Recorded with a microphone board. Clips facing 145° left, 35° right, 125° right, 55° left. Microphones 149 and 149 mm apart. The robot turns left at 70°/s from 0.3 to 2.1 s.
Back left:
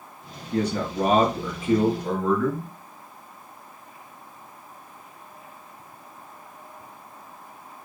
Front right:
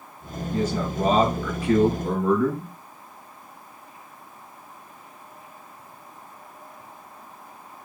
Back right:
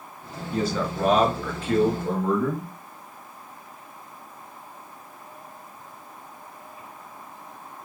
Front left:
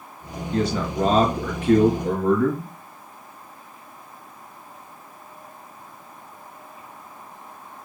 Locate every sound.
0.5 s a man speaking: 155° left, 4 m; by 2.7 s 45° left, 4 m